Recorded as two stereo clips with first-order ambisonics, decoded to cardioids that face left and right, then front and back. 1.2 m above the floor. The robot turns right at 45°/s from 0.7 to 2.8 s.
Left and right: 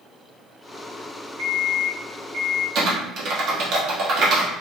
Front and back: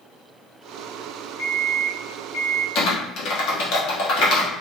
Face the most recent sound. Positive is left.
turn(degrees=-40)